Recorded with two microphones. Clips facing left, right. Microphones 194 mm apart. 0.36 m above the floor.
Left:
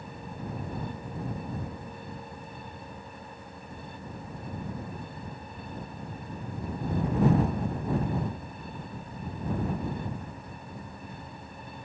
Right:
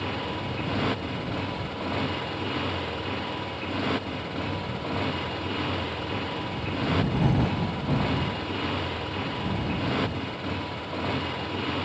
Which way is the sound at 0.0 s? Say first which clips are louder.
Right 9 dB; 90° right.